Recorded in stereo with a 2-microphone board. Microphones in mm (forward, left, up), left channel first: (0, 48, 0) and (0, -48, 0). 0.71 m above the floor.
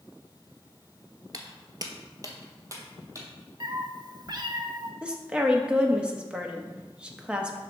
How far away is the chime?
I don't hear a chime.